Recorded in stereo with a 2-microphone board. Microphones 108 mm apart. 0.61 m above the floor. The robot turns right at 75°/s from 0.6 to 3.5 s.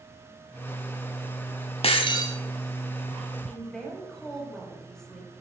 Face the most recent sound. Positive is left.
turn(degrees=5)  # may be behind; listen again after turning